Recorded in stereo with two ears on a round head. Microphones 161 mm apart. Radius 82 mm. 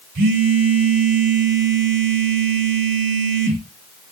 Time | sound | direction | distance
0.1 | a phone buzzing | 50° right (ahead or behind) | 0.7 m